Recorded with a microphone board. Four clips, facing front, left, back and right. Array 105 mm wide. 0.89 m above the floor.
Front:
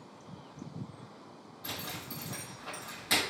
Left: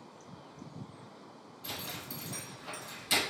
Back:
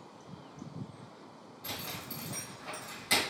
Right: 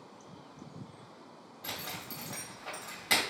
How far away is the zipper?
About 2 m.